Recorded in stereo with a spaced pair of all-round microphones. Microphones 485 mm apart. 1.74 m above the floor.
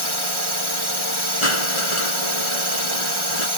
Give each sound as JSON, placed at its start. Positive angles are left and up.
{"t": 0.0, "sound": "a drone", "side_deg": -70}
{"t": 1.4, "sound": "crushing", "side_deg": 85}